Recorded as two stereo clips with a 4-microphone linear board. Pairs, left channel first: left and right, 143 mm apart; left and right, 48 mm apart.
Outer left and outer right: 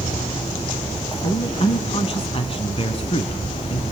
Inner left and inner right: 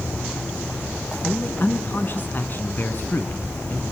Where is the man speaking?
40° left (ahead or behind), 1.4 m.